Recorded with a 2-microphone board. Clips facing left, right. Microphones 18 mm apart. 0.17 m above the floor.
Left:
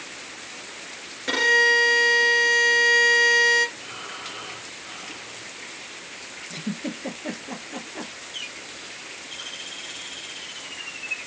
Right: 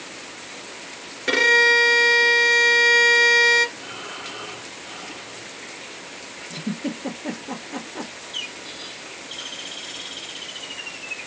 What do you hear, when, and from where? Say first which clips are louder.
1.3 s a violin: right 3 dB; 20° right (ahead or behind), 1.8 m
3.8 s breathing: right 2 dB; 5° right (ahead or behind), 2.5 m
6.5 s a giggle: right 3 dB; centre (ahead or behind), 2.5 m
8.3 s a bird: right 5 dB; 30° right (ahead or behind), 2.5 m